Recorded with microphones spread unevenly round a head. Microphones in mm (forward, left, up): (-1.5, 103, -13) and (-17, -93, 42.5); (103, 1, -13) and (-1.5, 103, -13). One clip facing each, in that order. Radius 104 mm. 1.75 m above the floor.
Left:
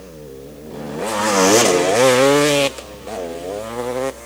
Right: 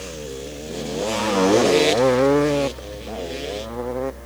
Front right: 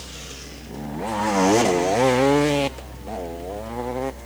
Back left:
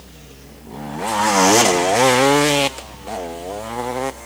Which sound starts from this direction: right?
A fan, at 0.0 s.